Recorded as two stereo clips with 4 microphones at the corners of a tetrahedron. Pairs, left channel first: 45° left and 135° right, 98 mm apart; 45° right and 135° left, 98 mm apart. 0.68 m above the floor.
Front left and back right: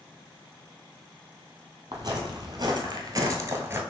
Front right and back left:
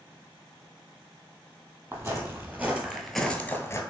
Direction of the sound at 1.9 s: 170° right.